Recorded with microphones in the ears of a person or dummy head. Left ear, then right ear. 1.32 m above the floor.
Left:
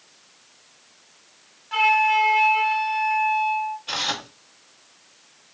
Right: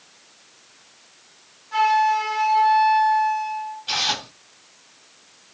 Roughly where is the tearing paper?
Centre.